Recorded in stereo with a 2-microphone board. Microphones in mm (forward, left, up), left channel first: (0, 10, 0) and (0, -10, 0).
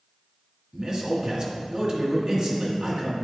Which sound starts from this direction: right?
A man speaking, at 0.7 s.